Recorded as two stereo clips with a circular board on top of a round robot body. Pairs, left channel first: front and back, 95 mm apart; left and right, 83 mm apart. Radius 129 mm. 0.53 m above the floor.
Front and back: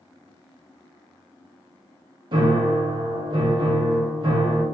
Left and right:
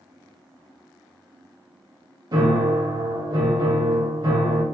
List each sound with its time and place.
2.3 s a piano: 140° right, 0.6 m